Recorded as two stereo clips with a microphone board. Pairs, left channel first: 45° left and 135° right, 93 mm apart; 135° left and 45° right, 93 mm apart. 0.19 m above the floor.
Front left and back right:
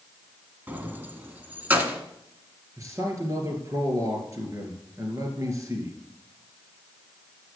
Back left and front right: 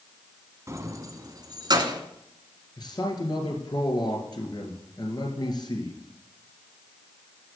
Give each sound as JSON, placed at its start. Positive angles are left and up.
{"t": 0.7, "sound": "keys jangling", "azimuth_deg": -75, "distance_m": 1.3}
{"t": 2.8, "sound": "a man speaking", "azimuth_deg": 170, "distance_m": 3.0}